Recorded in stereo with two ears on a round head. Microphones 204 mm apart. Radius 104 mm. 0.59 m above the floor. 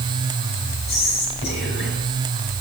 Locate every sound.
0.9 s whispering: 50° left (ahead or behind), 3 m